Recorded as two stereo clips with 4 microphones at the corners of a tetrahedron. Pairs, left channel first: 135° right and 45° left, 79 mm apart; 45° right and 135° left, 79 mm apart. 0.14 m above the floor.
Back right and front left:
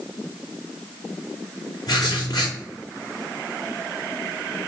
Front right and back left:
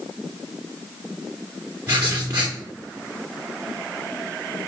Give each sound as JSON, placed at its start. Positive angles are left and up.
{"t": 1.9, "sound": "writing", "azimuth_deg": -175, "distance_m": 3.0}